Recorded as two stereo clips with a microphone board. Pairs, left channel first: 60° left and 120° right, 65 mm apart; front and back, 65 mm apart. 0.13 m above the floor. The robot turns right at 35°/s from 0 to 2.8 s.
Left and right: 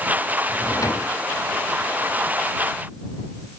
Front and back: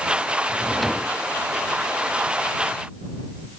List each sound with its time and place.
0.5 s a drawer: 80° left; by 1.2 s 105° left